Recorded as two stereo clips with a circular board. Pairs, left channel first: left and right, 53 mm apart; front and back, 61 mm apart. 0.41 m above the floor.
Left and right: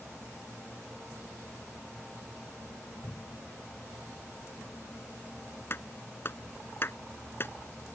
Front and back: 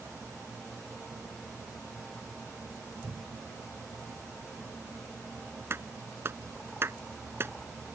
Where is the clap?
135° left.